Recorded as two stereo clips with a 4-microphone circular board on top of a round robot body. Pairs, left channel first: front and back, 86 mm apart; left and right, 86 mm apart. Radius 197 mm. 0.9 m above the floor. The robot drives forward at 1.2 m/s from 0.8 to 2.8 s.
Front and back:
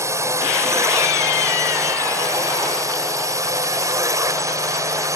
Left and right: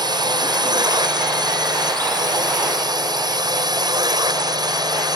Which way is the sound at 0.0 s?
125° right.